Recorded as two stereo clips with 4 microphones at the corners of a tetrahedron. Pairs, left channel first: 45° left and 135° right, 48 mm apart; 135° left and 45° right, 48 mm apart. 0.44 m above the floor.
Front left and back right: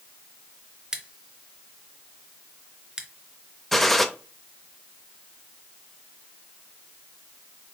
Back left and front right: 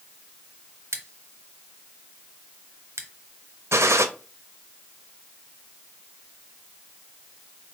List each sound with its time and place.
0.9 s scissors: 60° right, 0.8 m
3.7 s a gunshot: 40° right, 0.5 m